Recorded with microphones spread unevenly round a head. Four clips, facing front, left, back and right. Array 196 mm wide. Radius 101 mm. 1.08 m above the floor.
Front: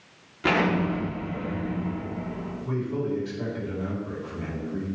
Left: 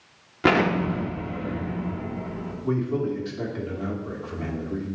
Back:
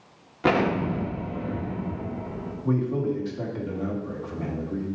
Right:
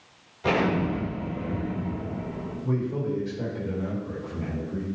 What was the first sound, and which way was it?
An explosion, 85° left.